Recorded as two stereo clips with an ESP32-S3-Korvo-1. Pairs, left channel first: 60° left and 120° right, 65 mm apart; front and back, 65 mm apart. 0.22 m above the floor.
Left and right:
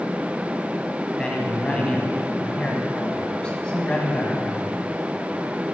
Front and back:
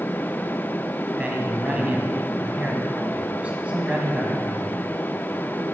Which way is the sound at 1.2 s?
125° left.